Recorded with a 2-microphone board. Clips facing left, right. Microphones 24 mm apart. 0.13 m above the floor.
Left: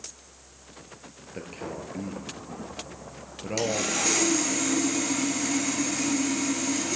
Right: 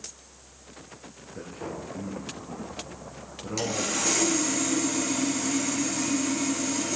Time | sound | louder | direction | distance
1.3 | a man speaking | even | 55° left (ahead or behind) | 1.8 m
3.6 | sawing | left 2 dB | 20° left (ahead or behind) | 2 m